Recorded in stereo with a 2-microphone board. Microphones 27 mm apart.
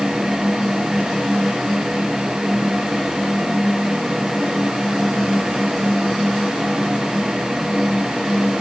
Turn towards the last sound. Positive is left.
No sound to turn to.